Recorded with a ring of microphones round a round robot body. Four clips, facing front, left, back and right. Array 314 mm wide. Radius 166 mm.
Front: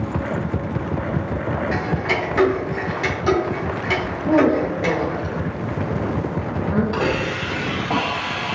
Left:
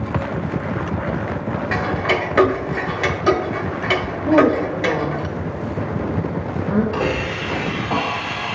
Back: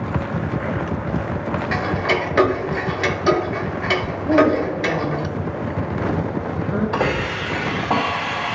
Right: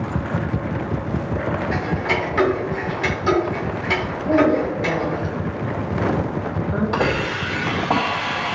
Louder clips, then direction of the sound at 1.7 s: Left 2 dB, back 2 dB; 125° left.